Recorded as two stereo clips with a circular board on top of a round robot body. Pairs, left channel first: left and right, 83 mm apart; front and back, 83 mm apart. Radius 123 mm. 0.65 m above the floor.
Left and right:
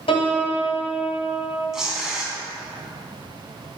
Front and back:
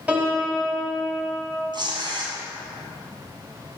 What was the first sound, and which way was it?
A piano, 105° left.